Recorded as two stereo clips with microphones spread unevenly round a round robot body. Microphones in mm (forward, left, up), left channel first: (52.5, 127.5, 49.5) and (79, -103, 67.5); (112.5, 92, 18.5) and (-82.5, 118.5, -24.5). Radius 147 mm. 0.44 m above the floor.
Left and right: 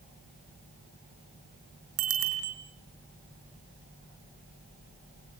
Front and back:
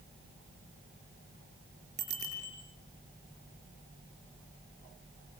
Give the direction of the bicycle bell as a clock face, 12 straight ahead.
4 o'clock.